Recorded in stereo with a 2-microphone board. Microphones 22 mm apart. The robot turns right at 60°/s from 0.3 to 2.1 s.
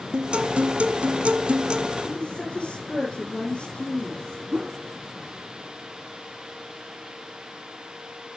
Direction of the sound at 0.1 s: 130° right.